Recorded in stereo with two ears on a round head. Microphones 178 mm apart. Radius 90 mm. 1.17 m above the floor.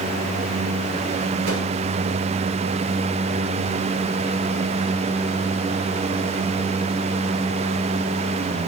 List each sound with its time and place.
1.4 s a whoosh: 90° right, 4 m